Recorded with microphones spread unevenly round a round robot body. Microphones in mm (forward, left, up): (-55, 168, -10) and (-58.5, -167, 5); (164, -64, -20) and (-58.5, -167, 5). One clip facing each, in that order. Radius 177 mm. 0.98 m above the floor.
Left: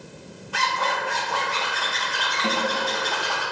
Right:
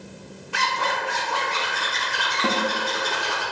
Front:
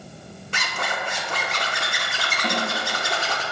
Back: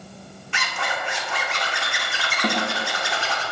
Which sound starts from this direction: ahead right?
A zipper, at 0.5 s.